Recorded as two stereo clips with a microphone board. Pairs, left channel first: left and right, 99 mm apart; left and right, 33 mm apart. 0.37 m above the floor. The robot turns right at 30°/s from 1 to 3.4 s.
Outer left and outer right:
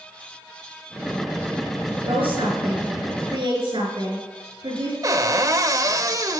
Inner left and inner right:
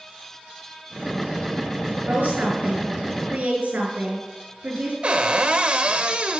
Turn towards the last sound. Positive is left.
turn(degrees=-40)  # may be behind; listen again after turning